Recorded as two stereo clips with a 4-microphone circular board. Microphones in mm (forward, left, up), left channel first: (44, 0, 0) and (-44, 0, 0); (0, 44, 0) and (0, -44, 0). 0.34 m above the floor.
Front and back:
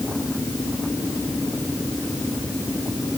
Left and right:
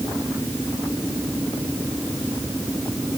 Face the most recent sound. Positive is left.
No sound to turn to.